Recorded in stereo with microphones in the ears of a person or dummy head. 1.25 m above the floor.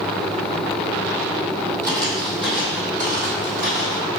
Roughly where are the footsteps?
Centre.